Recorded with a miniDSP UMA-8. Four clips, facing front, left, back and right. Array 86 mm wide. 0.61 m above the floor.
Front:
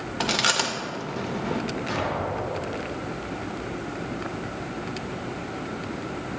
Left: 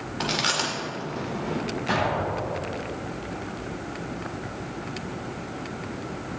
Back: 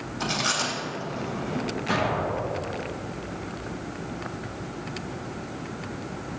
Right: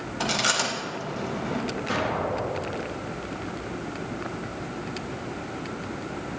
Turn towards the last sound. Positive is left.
turn(degrees=110)